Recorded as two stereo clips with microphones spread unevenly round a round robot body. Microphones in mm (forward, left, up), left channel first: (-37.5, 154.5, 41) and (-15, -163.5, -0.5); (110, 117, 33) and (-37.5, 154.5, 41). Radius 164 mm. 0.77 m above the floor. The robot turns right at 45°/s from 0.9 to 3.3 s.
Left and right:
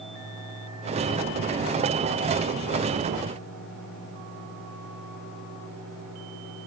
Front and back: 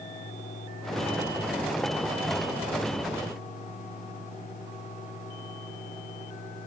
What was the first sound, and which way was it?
Only background noise.